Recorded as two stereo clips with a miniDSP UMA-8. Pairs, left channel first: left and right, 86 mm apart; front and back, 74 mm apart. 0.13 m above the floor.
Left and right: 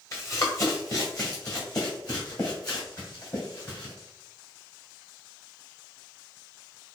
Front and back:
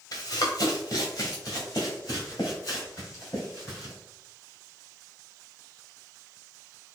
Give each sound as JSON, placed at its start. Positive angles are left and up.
{"t": 0.1, "sound": "running footsteps", "azimuth_deg": 35, "distance_m": 1.3}